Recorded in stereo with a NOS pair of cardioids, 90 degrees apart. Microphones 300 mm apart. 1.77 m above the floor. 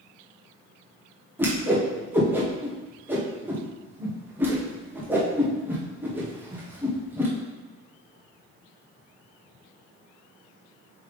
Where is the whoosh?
5° right, 1.7 m.